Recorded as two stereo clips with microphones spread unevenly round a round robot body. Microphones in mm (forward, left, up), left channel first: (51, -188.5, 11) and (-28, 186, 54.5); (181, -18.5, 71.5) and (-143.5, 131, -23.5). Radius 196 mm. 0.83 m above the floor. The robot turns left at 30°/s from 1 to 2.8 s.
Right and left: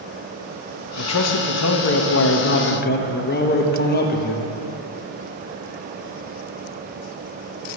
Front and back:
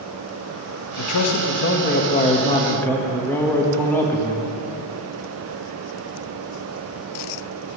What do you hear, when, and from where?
1.0 s a man speaking: 70° right, 1.3 m; by 4.5 s 125° right, 1.3 m